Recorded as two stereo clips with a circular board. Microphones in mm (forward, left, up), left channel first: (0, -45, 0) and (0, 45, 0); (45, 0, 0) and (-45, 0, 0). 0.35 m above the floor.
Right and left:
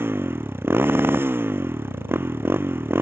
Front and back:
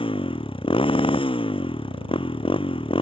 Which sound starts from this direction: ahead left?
A motorcycle, at 0.0 s.